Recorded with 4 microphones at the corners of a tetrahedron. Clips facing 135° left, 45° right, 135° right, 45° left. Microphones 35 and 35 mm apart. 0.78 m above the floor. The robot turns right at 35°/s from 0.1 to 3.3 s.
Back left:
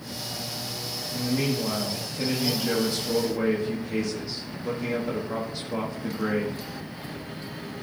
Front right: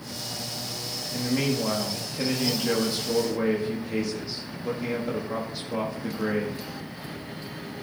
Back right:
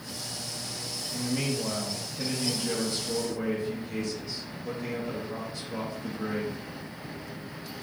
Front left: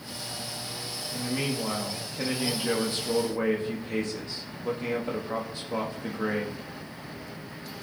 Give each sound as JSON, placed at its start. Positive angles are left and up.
{"t": 1.1, "sound": "a man speaking", "azimuth_deg": -35, "distance_m": 1.5}